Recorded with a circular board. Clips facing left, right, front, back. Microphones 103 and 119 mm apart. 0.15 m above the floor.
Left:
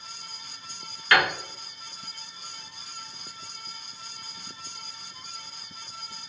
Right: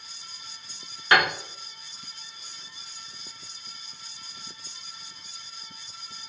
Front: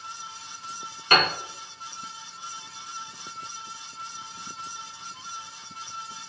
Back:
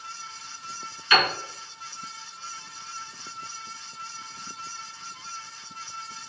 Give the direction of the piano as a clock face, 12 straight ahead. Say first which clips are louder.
Right 1 dB, even; 1 o'clock.